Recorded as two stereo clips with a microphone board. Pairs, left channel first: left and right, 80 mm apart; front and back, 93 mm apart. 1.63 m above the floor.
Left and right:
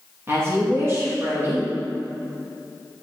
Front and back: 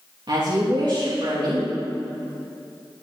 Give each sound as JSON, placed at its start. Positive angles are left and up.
{"t": 0.3, "sound": "a woman speaking", "azimuth_deg": -145, "distance_m": 2.5}